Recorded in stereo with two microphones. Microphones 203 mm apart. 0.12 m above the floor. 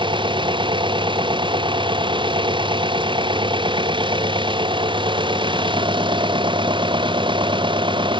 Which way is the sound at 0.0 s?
25° right (ahead or behind).